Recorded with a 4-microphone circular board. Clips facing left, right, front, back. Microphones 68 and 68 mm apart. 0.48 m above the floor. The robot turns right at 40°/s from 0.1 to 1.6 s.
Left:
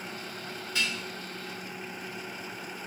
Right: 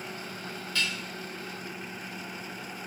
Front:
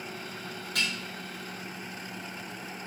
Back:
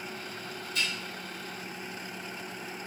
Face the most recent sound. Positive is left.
turn(degrees=55)